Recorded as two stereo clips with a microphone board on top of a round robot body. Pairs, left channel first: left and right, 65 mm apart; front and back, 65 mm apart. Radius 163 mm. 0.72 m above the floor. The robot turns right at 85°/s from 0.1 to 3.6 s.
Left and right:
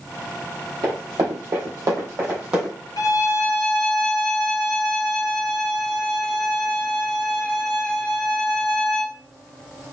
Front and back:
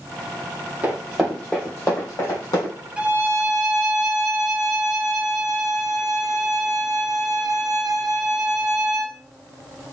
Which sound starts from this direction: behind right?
Running footsteps, at 0.8 s.